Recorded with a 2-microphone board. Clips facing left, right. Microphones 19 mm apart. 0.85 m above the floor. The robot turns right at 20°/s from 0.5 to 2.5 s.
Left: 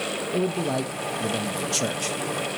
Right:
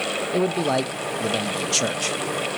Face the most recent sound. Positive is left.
turn(degrees=-30)